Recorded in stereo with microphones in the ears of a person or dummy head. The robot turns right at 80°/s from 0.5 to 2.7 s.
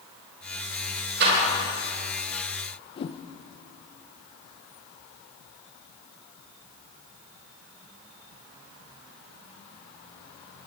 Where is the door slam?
65° right (ahead or behind), 4.5 m; by 1.4 s 45° right (ahead or behind), 4.5 m.